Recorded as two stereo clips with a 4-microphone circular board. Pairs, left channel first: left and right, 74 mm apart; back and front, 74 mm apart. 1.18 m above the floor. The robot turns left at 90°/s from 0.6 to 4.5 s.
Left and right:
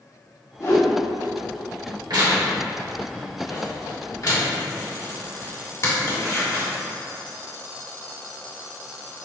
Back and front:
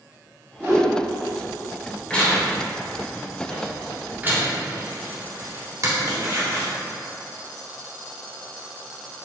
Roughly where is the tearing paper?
Right.